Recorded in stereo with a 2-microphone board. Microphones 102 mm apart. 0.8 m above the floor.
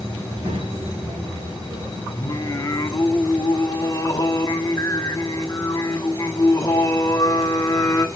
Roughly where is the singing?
Left.